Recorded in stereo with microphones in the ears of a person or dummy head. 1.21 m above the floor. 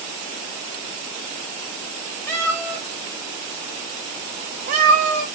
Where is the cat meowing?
20° left (ahead or behind), 1.7 m; by 5.3 s 55° right (ahead or behind), 1.3 m.